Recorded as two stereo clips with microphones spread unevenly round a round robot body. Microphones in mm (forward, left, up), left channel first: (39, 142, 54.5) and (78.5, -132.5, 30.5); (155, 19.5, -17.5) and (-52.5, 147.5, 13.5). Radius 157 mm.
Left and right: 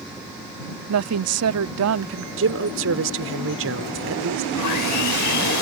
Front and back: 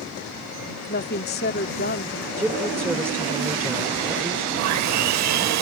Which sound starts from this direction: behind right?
A woman speaking, at 2.4 s.